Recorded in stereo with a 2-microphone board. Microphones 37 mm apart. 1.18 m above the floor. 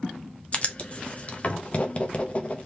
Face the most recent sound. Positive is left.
turn(degrees=40)  # may be behind; listen again after turning